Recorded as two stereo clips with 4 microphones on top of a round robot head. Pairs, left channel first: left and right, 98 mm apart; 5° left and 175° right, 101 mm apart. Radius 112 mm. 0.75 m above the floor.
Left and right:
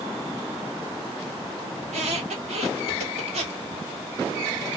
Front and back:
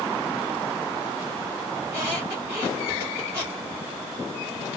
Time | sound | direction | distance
1.8 | a squeak | 100° right | 1.4 m